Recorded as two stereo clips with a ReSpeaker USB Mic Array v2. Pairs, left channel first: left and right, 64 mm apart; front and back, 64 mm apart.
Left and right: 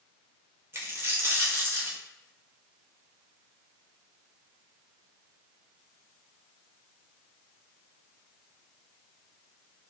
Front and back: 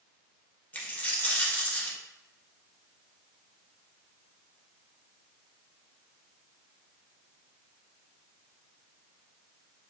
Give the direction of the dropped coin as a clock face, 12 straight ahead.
2 o'clock.